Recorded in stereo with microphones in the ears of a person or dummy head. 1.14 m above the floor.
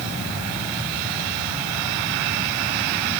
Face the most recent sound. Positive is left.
No sound to turn to.